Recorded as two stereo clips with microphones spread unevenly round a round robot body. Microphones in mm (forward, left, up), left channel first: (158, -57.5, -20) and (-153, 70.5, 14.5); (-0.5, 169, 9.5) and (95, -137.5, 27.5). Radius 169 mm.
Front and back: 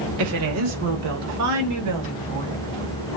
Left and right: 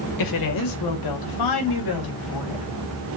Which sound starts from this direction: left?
A woman speaking, at 0.2 s.